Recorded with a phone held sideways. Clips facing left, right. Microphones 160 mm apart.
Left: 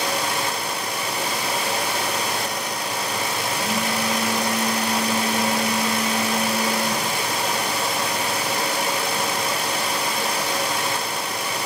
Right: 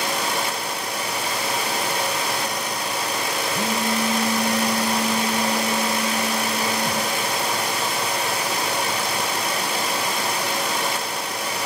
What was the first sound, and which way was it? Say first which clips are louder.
A phone buzzing: right 2 dB; 30° right (ahead or behind).